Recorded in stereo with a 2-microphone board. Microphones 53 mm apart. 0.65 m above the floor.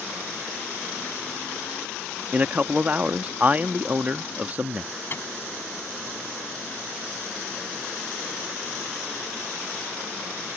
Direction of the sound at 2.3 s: 30° right (ahead or behind).